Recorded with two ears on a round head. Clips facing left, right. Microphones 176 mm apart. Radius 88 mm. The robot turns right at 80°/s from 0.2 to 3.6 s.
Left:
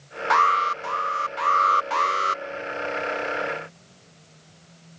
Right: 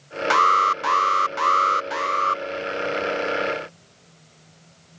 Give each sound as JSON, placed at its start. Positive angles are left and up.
{"t": 0.3, "sound": "an alarm", "azimuth_deg": -145}